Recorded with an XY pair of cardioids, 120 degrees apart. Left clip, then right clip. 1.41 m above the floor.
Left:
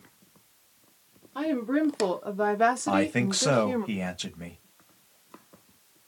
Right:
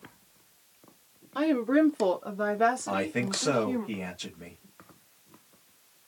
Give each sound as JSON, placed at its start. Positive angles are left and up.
{"t": 1.4, "sound": "a woman speaking", "azimuth_deg": -20, "distance_m": 1.0}
{"t": 2.9, "sound": "a man speaking", "azimuth_deg": 40, "distance_m": 1.0}